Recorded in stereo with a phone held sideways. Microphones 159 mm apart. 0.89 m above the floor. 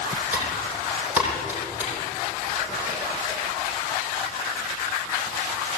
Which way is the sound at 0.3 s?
10° right (ahead or behind).